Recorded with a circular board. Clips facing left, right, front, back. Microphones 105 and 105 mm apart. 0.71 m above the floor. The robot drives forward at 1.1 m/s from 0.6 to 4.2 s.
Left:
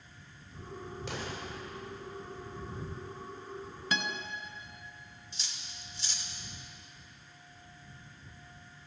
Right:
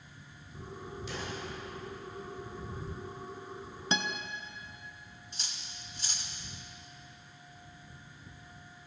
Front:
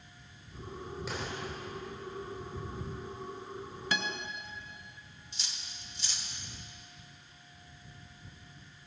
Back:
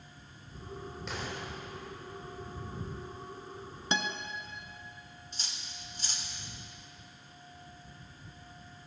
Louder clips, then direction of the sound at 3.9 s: Right 1 dB, back 2 dB; 130° right.